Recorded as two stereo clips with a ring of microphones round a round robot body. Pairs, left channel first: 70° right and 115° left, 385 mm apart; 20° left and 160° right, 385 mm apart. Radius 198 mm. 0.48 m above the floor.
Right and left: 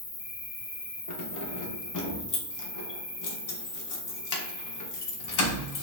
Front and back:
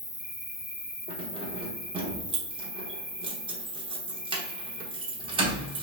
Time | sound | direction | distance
0.0 | an insect | 30° right | 2 m
1.1 | keys jangling | 85° right | 0.9 m